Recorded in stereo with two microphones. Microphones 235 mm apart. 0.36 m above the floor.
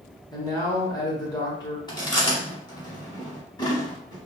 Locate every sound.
0.3 s a man speaking: 20° left (ahead or behind), 0.8 m
1.9 s chewing: 20° left (ahead or behind), 0.9 m